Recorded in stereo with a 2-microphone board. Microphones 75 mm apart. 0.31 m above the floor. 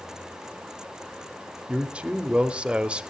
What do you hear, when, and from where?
1.7 s a man speaking: 15° right (ahead or behind), 0.9 m